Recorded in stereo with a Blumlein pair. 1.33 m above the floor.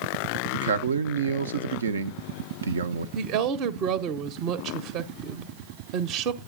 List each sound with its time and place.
0.5 s a man speaking: 70° right, 0.7 m
3.1 s a woman speaking: 40° right, 0.8 m